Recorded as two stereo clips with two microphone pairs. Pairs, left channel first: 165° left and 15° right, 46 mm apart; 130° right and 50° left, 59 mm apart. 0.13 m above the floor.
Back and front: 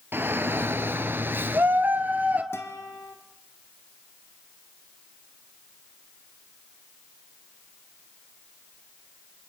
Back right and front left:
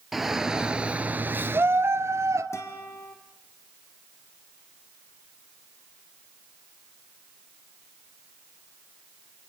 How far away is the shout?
About 2 m.